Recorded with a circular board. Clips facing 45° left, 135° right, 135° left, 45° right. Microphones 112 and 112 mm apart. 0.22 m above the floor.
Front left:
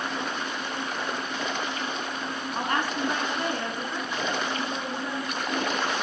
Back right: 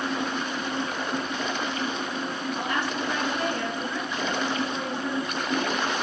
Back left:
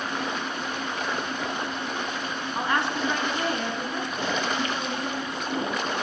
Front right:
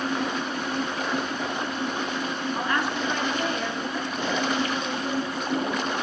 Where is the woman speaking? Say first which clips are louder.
Front left 3 dB, back left 2 dB; 65° left, 2 m; by 6.0 s 130° left, 5 m.